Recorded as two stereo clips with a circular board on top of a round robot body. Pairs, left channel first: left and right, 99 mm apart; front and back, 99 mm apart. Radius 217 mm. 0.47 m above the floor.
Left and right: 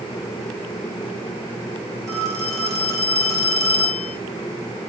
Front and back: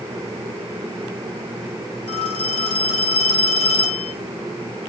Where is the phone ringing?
30° right, 4 m.